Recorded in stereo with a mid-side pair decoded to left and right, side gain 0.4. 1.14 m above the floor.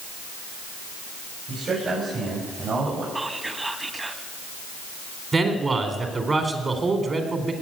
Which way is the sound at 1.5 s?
60° right.